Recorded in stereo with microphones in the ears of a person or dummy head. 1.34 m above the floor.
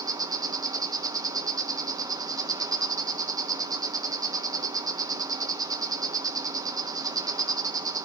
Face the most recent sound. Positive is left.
turn(degrees=-20)  # may be behind; listen again after turning